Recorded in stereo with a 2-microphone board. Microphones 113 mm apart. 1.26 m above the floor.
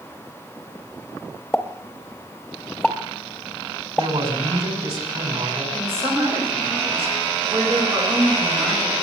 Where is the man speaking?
60° right (ahead or behind), 4.5 m.